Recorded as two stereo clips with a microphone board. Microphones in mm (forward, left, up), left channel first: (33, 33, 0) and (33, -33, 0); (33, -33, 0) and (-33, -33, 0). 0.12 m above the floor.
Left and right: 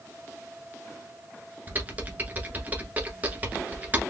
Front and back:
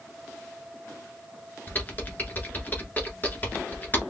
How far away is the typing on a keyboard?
About 1.3 m.